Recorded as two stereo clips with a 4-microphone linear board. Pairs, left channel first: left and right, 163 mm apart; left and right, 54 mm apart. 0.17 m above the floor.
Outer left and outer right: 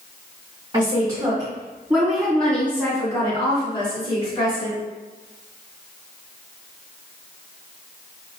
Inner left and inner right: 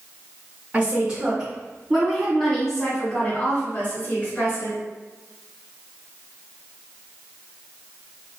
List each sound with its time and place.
0.7 s a woman speaking: 30° right (ahead or behind), 1.9 m; by 4.8 s 45° left (ahead or behind), 2 m